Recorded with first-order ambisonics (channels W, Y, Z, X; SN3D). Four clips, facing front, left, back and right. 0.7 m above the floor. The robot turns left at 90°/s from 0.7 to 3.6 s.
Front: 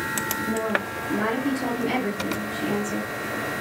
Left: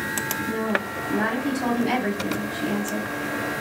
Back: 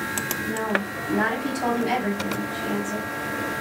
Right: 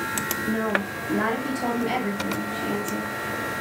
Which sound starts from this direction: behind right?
A woman speaking, at 0.5 s.